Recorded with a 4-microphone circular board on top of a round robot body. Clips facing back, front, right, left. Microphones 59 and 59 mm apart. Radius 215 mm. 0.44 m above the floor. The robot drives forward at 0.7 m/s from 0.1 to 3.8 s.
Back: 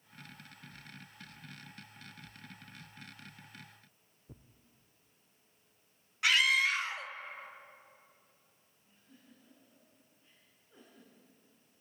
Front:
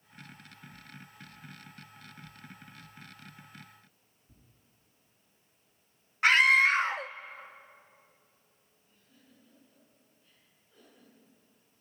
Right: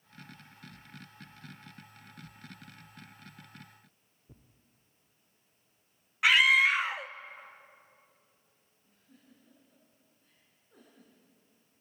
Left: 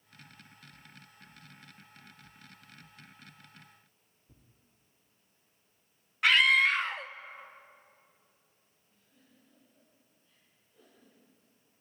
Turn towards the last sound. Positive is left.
turn(degrees=-110)